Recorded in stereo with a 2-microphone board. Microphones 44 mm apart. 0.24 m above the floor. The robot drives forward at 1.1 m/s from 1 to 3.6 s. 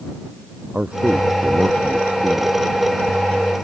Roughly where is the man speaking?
Right.